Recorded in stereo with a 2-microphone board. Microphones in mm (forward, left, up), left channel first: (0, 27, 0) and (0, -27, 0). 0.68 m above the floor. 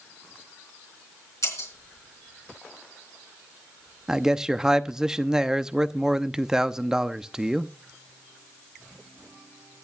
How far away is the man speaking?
About 0.7 m.